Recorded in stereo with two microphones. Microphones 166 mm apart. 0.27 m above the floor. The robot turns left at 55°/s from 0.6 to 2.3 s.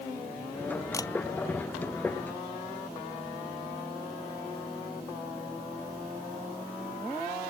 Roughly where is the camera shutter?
Centre.